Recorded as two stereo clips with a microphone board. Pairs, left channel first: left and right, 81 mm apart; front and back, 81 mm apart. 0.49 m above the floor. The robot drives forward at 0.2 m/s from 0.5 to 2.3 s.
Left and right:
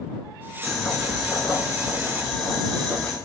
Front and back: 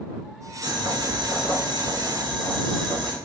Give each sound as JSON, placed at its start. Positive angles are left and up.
{"t": 0.6, "sound": "boiling", "azimuth_deg": 180, "distance_m": 1.0}